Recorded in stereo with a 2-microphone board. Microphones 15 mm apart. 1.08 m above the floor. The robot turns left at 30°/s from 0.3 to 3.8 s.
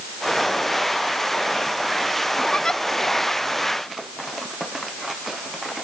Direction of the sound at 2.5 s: 70° left (ahead or behind).